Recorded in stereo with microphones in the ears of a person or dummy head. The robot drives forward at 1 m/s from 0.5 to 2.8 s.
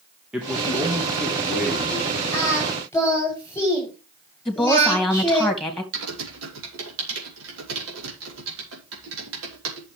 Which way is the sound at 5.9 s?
80° right.